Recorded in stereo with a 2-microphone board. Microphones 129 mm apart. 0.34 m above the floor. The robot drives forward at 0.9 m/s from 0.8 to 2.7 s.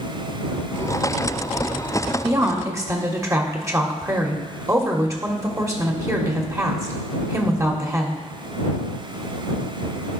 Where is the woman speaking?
30° right (ahead or behind), 0.9 m; by 8.2 s 25° right (ahead or behind), 1.0 m.